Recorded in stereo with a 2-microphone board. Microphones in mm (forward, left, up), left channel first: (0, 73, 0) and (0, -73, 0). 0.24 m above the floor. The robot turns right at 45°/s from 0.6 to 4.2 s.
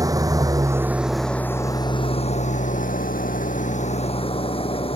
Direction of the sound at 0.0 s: 25° right.